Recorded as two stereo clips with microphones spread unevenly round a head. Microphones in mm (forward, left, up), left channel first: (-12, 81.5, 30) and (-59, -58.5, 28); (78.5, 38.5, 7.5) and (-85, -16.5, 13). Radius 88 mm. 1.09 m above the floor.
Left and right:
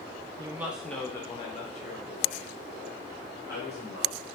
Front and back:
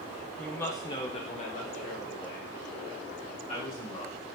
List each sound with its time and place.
0.4 s a woman speaking: 60° right, 0.6 m; by 4.2 s 60° left, 2.0 m